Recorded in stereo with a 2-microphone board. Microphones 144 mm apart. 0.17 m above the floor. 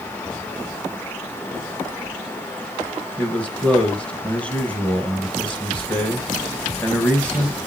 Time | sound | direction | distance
3.2 | a man speaking | 10° left (ahead or behind) | 2 m